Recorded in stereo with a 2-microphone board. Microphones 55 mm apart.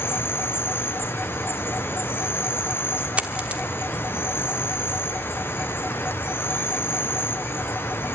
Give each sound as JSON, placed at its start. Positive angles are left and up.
{"t": 0.0, "sound": "an insect", "side_deg": 40, "distance_m": 1.1}
{"t": 3.2, "sound": "a dropped coin", "side_deg": -20, "distance_m": 1.2}